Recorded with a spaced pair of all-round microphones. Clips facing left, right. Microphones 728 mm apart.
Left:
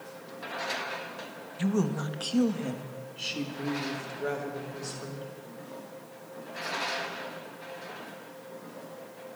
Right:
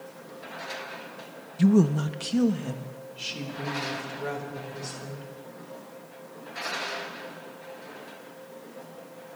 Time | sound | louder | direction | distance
1.6 | a woman speaking | right 8 dB | 65° right (ahead or behind) | 1.1 m